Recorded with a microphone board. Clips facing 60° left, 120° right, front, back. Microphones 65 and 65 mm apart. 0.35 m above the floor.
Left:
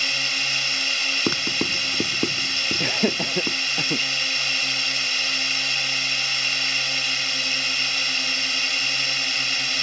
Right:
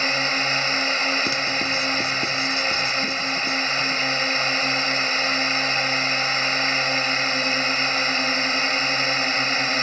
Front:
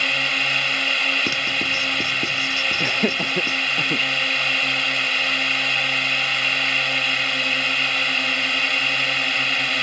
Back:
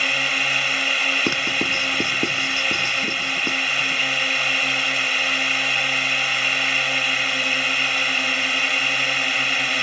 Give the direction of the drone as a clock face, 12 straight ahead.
3 o'clock.